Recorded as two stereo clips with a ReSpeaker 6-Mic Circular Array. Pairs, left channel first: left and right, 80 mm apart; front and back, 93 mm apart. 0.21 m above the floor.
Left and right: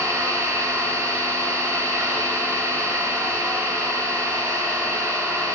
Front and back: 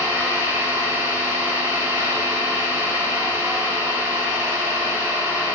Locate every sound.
0.0 s an engine running: 135° right, 0.7 m